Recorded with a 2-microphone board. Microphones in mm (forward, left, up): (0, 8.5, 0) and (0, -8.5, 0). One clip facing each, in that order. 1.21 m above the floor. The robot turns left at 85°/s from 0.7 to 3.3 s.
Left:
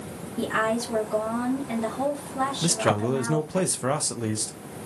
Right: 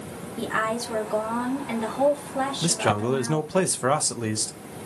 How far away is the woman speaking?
About 2.5 m.